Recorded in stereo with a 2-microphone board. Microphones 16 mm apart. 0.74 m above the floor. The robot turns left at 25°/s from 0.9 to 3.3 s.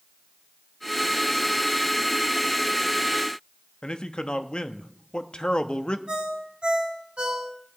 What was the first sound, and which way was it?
A man speaking, 50° left (ahead or behind).